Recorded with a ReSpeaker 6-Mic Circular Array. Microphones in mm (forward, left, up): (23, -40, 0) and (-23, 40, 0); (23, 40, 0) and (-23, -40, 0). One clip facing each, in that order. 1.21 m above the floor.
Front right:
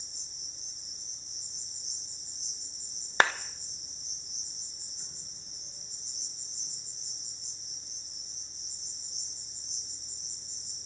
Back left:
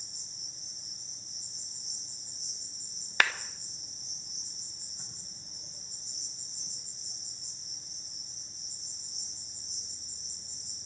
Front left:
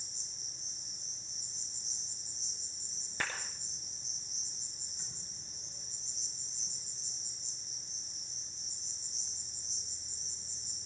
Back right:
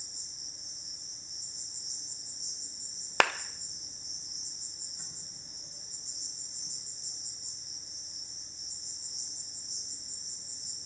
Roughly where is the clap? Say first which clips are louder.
Front right 3 dB, back right 12 dB; behind right.